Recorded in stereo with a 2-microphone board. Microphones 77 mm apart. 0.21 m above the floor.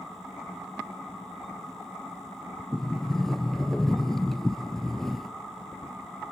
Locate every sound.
2.7 s a sliding door: 5° left (ahead or behind), 1.4 m